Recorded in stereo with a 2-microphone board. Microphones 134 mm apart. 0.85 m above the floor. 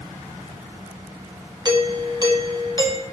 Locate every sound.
1.6 s a doorbell: 30° right (ahead or behind), 1.4 m